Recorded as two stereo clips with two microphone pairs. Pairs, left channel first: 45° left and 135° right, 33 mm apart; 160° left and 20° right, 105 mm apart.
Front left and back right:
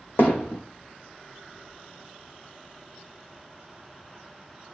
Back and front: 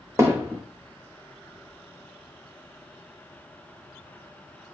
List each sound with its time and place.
0.2 s hammering: 45° left, 2.5 m